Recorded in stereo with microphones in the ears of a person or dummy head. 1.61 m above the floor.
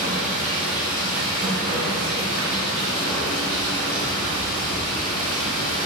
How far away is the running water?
About 3 m.